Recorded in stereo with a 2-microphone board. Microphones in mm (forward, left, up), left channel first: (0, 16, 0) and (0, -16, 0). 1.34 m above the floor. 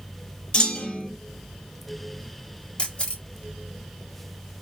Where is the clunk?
30° left (ahead or behind), 1.6 m.